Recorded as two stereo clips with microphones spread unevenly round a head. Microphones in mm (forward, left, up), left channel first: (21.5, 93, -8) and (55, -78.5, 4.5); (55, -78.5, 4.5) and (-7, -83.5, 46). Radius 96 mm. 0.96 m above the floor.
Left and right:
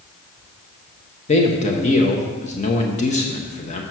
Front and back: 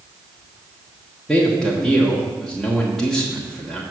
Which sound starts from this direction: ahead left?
A man speaking, at 1.3 s.